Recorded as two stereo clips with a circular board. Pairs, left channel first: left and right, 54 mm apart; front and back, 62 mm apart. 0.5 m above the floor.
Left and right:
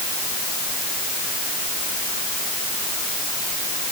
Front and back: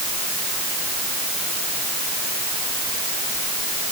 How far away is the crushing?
No crushing in this recording.